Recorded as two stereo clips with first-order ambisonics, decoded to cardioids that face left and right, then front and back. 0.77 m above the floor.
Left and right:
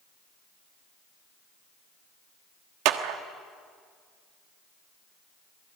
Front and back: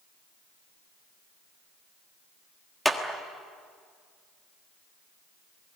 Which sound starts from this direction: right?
A clap, at 2.9 s.